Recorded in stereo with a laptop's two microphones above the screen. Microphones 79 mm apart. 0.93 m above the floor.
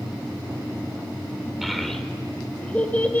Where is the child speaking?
Centre (ahead or behind), 2 m; by 3.2 s 20° left (ahead or behind), 2.5 m.